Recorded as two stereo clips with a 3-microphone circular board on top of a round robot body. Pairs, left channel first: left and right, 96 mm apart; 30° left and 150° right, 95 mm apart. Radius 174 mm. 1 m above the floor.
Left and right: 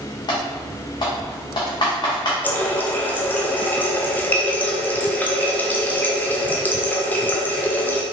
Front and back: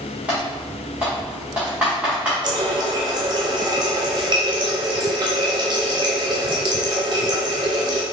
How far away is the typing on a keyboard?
About 0.9 m.